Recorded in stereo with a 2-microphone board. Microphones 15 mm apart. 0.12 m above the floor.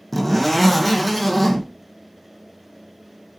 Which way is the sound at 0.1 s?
10° left (ahead or behind).